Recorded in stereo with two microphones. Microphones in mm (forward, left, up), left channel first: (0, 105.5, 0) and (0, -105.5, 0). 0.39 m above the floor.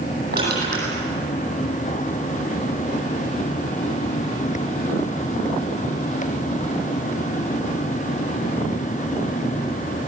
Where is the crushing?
50° right (ahead or behind), 9.5 m.